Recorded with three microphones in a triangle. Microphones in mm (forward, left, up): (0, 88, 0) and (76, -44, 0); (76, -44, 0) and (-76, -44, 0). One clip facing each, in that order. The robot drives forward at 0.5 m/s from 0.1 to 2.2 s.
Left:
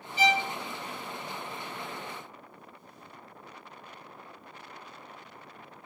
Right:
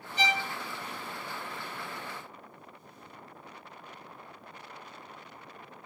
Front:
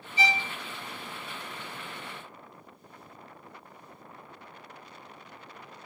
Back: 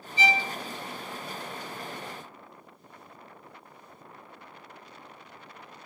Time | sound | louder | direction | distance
0.2 | a violin | left 5 dB, back 2 dB | 20° right | 2 m